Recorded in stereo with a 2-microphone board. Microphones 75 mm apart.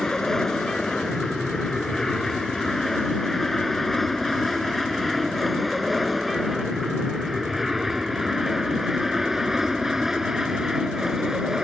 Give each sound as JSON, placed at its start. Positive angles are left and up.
{"t": 0.0, "sound": "an aircraft", "side_deg": 5}